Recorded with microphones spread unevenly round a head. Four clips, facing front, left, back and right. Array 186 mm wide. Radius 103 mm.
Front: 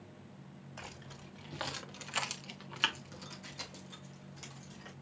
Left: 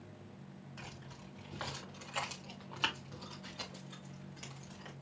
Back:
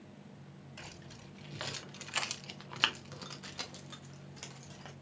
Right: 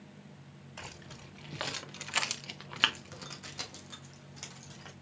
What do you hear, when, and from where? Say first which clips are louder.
0.8 s keys jangling: right 6 dB, front 3 dB; 50° right, 1.9 m; by 4.9 s 175° right, 1.9 m